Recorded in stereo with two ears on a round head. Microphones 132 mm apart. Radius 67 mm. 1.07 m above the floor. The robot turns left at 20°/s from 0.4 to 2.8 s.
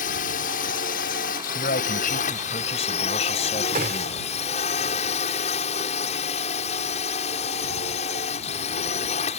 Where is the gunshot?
60° right (ahead or behind).